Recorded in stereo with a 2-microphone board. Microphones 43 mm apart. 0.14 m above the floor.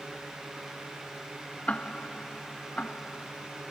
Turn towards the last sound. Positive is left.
turn(degrees=30)  # may be behind; listen again after turning